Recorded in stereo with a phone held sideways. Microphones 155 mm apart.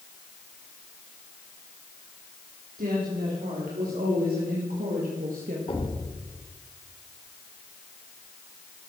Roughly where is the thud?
Left.